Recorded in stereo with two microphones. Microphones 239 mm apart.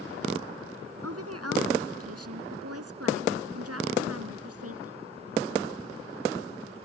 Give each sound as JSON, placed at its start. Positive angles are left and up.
{"t": 1.0, "sound": "a woman speaking", "side_deg": -80}